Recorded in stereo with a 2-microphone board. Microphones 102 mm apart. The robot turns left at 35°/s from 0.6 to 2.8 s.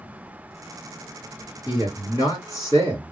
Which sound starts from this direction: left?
A man speaking, at 1.6 s.